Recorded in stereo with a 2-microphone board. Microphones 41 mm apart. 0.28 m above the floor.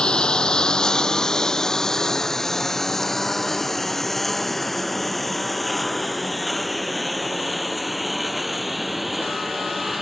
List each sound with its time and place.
0.0 s a lawn mower: 20° left (ahead or behind); by 10.0 s 5° right (ahead or behind)